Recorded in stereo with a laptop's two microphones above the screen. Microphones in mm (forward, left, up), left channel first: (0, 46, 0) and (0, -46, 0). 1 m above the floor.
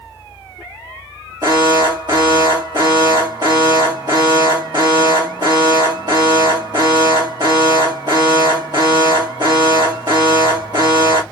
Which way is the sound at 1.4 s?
50° right (ahead or behind).